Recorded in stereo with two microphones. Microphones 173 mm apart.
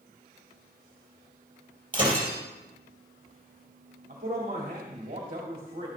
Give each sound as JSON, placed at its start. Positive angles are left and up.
{"t": 1.9, "sound": "breaking glass", "side_deg": -30, "distance_m": 3.5}
{"t": 4.1, "sound": "a man speaking", "side_deg": -50, "distance_m": 2.0}